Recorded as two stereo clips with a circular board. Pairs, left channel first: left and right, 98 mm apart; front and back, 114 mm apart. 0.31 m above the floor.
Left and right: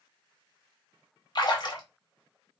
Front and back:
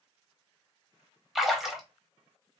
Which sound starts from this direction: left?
A splash, at 1.4 s.